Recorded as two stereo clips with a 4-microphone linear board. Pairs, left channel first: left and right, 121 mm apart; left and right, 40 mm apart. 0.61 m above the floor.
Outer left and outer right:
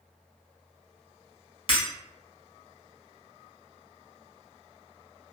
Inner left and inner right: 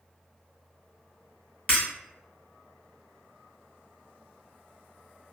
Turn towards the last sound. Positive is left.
turn(degrees=45)  # may be behind; listen again after turning